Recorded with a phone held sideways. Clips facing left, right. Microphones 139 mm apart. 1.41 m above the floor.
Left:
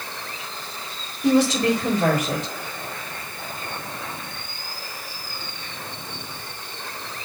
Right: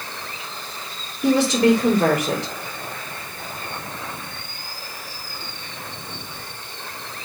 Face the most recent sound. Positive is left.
turn(degrees=-80)